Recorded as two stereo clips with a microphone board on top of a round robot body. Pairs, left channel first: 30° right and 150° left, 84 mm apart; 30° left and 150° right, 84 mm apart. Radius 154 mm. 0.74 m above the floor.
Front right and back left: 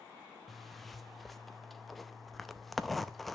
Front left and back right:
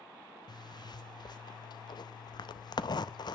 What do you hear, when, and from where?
0.5 s a zipper: 60° left, 0.7 m